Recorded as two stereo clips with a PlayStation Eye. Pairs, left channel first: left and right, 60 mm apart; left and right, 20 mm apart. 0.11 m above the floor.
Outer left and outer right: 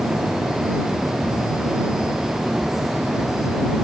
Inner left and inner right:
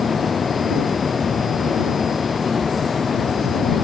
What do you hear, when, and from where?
Only background noise.